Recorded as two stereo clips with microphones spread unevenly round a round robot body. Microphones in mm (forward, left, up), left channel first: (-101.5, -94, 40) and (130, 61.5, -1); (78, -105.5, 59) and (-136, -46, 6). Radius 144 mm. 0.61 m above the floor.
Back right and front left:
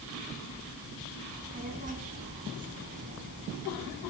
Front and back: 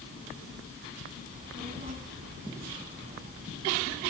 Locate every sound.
1.3 s a child speaking: 100° left, 3 m